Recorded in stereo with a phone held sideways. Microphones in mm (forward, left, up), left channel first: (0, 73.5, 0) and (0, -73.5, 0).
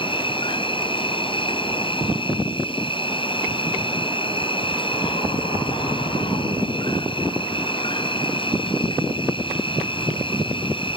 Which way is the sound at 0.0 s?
35° left (ahead or behind).